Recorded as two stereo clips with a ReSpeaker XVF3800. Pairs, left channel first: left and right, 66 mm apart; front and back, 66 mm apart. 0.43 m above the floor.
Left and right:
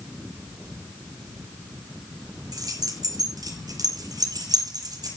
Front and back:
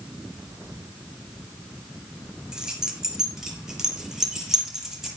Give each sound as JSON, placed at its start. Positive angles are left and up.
{"t": 2.5, "sound": "keys jangling", "azimuth_deg": -100, "distance_m": 4.5}